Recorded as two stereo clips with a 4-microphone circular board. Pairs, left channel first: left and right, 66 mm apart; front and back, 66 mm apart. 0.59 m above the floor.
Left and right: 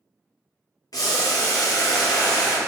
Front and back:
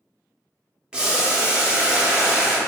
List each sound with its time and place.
0.9 s boiling: 105° left, 0.6 m